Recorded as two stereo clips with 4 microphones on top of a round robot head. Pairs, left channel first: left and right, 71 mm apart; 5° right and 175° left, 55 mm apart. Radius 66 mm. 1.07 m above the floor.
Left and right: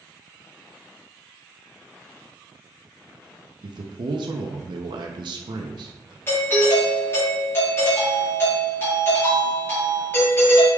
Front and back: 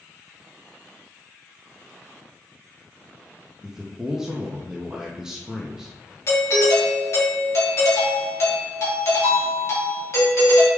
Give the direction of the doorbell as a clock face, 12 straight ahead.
11 o'clock.